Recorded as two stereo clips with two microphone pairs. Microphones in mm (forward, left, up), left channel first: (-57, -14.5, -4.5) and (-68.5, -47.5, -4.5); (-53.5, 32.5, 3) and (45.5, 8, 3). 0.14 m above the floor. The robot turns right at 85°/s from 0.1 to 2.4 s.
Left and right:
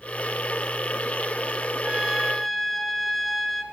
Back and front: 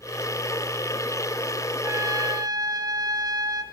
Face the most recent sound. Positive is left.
turn(degrees=-15)